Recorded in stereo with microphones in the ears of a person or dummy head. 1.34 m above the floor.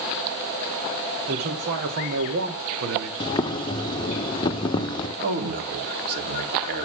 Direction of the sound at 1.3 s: 50° right (ahead or behind).